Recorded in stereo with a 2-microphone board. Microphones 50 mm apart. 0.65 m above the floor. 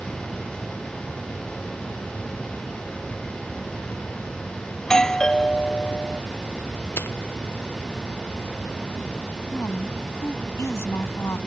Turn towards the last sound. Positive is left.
turn(degrees=65)  # may be behind; listen again after turning